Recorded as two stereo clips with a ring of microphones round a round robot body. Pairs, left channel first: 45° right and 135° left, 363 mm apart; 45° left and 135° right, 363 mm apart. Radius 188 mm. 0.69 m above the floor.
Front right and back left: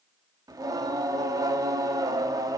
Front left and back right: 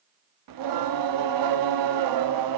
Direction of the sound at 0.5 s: 145° right.